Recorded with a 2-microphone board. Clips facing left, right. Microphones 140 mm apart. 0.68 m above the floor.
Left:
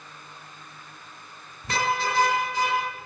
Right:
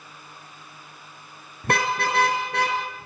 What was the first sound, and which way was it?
A car horn, 60° right (ahead or behind).